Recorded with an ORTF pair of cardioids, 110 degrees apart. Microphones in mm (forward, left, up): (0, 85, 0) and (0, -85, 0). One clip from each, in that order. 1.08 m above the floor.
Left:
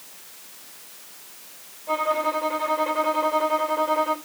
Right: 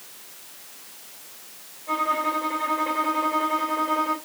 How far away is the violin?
About 3 m.